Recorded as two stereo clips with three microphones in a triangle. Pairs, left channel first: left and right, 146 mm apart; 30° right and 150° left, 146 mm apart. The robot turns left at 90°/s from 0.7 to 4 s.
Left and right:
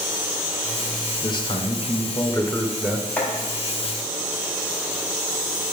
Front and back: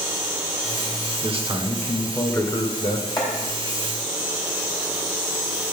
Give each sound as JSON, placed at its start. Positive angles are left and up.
{"t": 1.2, "sound": "a man speaking", "azimuth_deg": 140, "distance_m": 1.0}
{"t": 3.2, "sound": "chopping", "azimuth_deg": 20, "distance_m": 1.9}